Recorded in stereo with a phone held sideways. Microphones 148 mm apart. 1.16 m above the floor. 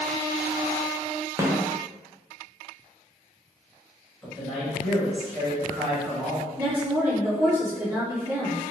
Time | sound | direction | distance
1.4 | a snare drum | 20° right (ahead or behind) | 0.6 m
4.2 | a man speaking | centre (ahead or behind) | 1.6 m
6.6 | a woman speaking | 15° right (ahead or behind) | 1.5 m